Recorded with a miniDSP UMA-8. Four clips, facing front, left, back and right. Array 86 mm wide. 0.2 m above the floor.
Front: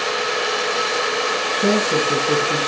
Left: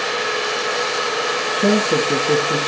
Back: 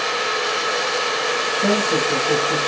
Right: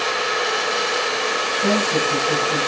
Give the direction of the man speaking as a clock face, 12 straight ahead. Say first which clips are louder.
Left 4 dB, front 1 dB; 9 o'clock.